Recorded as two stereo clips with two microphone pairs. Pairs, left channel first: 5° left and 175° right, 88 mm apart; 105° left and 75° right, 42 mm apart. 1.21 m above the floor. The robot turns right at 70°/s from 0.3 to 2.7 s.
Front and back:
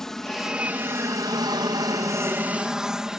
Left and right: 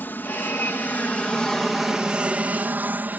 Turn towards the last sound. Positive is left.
turn(degrees=-90)